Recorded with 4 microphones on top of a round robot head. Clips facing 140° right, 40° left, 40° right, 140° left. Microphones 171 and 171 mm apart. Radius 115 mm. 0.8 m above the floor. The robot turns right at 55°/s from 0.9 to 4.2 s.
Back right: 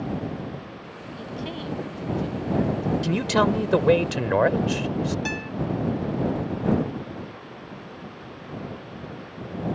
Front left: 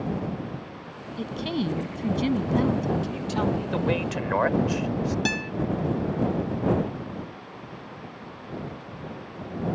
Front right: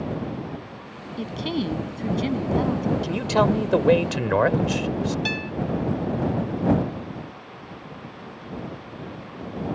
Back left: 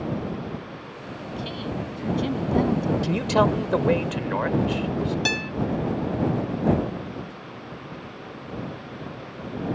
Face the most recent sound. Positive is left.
turn(degrees=100)